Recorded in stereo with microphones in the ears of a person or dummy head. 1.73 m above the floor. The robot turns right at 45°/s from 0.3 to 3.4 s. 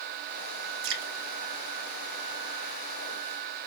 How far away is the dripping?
About 1.9 m.